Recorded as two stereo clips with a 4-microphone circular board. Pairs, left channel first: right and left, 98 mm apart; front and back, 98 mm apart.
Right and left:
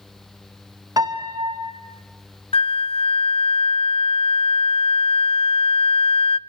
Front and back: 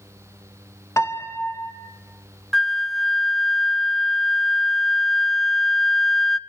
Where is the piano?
55° left, 2 m.